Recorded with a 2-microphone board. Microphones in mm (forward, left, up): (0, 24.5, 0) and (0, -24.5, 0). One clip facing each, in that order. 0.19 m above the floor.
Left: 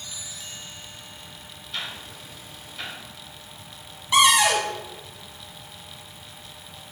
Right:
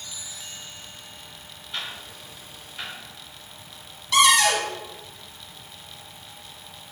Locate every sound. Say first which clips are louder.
1.7 s ticking: even; 10° right (ahead or behind), 1.7 m
4.1 s a cupboard door: even; 20° left (ahead or behind), 0.7 m